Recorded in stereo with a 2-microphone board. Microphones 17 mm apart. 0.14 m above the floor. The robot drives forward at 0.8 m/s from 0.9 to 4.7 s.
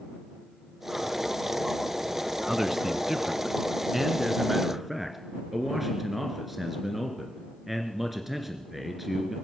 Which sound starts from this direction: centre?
A man speaking, at 2.5 s.